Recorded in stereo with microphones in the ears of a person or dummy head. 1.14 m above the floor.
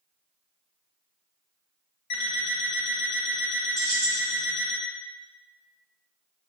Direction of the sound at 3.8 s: 70° right (ahead or behind).